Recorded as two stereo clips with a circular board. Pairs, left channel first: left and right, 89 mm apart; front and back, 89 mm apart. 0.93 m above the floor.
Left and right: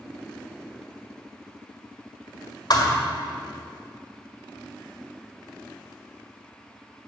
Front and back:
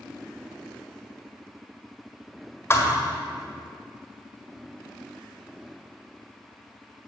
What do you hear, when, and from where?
2.7 s a thud: 60° left, 1.7 m